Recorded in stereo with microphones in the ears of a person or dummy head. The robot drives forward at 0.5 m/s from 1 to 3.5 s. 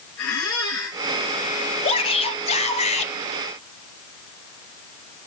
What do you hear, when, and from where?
0.2 s a squeak: 70° left (ahead or behind), 8.5 m
1.8 s a shout: 30° left (ahead or behind), 4 m; by 3.1 s 40° left (ahead or behind), 3 m